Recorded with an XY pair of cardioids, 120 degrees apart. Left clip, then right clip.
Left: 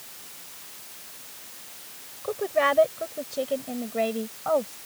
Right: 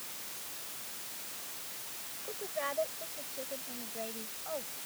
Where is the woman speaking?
70° left; by 4.8 s 80° left.